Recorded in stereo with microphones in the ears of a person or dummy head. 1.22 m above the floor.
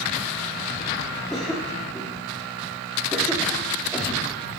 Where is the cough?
Centre (ahead or behind), 3 m.